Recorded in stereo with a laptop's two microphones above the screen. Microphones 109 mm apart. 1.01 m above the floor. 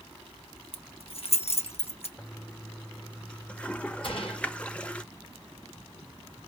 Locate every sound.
0.7 s keys jangling: 65° left (ahead or behind), 0.9 m
2.2 s a toilet flushing: 10° left (ahead or behind), 0.7 m
4.0 s a gunshot: 50° left (ahead or behind), 4.5 m